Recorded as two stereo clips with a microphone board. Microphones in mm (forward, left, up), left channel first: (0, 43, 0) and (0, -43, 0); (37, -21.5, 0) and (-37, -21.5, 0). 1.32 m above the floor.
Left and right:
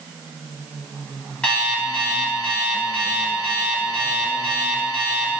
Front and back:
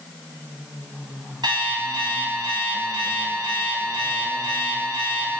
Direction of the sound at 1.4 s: 165° left.